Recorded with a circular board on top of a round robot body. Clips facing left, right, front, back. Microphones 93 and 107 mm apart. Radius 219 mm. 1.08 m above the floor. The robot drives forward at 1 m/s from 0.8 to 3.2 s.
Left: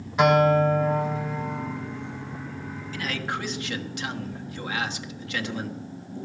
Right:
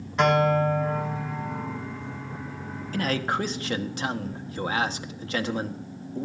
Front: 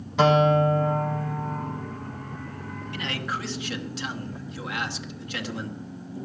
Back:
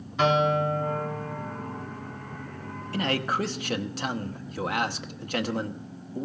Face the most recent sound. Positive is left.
turn(degrees=-140)